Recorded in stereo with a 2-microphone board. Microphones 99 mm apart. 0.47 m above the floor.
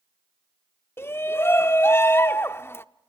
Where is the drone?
No drone in this recording.